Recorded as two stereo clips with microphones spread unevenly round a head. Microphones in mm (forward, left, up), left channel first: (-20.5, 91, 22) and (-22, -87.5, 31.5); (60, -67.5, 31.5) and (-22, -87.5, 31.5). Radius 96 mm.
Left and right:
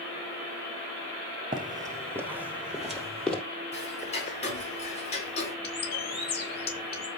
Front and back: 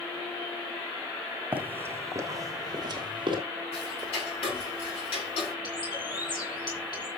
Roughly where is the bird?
Ahead left.